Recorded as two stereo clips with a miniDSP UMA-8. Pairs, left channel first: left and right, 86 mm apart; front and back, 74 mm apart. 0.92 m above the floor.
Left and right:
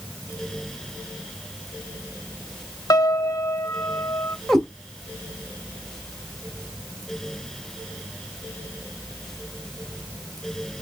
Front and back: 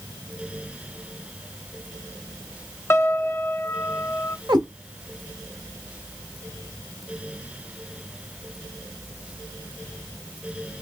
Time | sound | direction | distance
2.9 | a piano | 50° left | 0.6 m
4.5 | a cat meowing | 175° left | 1.8 m